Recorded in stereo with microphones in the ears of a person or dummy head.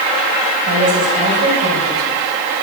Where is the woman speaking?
35° right (ahead or behind), 7.5 m.